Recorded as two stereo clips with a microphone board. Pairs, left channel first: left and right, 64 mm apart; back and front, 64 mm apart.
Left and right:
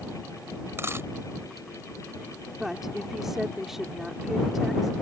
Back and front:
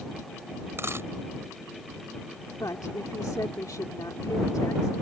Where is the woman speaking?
175° right.